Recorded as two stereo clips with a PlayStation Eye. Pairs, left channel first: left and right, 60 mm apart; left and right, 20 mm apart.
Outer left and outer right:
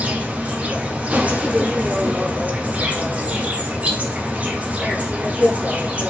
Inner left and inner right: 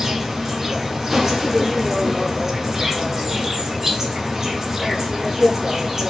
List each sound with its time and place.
0.0 s an insect: 25° right (ahead or behind), 0.8 m